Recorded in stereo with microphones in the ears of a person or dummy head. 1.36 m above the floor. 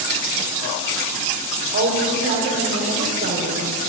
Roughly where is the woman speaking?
Right.